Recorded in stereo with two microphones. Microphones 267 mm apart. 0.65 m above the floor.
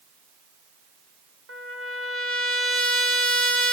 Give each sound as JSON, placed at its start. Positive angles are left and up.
{"t": 1.5, "sound": "a trumpet", "side_deg": -50, "distance_m": 2.0}